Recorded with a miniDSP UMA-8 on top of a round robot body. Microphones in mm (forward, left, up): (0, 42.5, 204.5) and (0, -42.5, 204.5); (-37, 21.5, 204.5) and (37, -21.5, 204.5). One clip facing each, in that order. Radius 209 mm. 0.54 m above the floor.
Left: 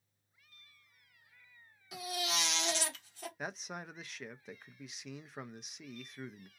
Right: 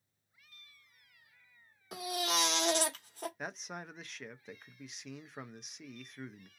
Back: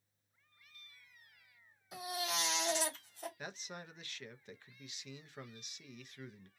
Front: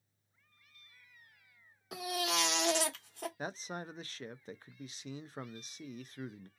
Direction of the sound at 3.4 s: Straight ahead.